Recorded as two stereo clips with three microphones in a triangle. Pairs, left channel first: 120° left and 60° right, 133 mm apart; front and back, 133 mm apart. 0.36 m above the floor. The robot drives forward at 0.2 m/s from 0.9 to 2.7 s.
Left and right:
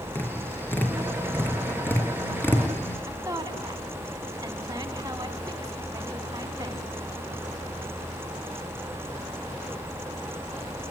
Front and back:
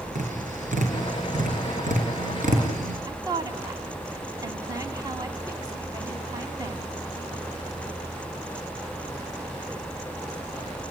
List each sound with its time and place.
0.1 s tapping: 165° right, 6 m
3.1 s a woman speaking: 120° right, 3 m